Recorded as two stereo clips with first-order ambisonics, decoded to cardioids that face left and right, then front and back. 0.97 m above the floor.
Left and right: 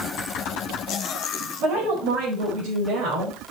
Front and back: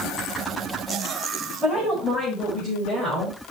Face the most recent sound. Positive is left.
turn(degrees=-85)